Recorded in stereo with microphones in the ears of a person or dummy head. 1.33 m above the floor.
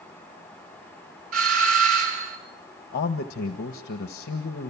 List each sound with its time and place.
1.3 s a doorbell: 40° right (ahead or behind), 6 m
2.9 s a man speaking: 45° left (ahead or behind), 1.4 m